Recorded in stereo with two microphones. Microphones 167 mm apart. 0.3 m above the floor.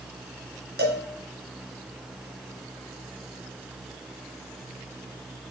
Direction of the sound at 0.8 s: 75° right (ahead or behind).